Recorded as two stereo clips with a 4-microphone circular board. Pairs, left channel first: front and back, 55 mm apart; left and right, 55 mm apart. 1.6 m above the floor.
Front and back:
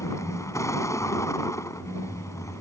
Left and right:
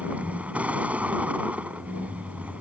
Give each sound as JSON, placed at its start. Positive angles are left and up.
{"t": 0.0, "sound": "a vehicle", "azimuth_deg": -25}